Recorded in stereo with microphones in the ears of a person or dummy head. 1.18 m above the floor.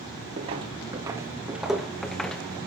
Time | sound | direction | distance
0.4 | footsteps | 30° right (ahead or behind) | 1.3 m